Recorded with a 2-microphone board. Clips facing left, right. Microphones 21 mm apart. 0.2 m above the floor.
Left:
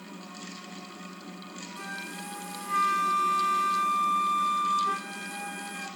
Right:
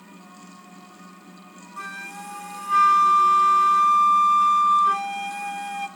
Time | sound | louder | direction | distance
1.8 | a flute | right 5 dB | 25° right (ahead or behind) | 0.9 m